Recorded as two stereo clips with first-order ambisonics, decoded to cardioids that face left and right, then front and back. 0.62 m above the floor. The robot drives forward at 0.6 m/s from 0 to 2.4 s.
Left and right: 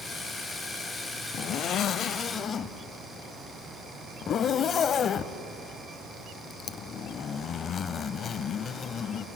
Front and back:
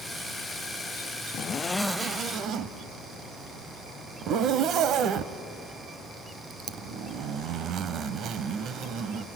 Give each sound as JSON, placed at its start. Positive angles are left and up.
{"t": 1.3, "sound": "a zipper", "azimuth_deg": 45, "distance_m": 0.5}